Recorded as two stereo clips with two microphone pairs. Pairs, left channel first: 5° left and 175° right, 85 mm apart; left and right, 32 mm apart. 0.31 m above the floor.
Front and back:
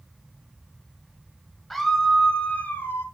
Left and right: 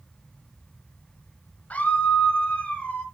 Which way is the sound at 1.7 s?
95° left.